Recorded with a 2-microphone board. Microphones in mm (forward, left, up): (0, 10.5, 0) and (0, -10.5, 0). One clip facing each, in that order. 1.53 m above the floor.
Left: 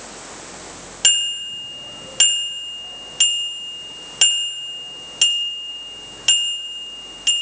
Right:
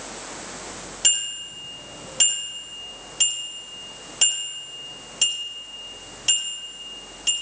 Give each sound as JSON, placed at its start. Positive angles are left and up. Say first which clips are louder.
{"t": 1.0, "sound": "a bicycle bell", "louder": "left 7 dB", "side_deg": 40, "distance_m": 3.0}